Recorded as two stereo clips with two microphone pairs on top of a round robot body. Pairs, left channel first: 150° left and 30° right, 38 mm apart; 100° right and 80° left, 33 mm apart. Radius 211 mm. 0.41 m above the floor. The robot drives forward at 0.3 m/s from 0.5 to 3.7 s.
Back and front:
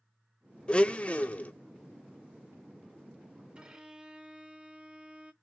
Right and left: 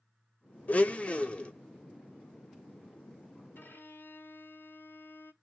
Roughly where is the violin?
Right.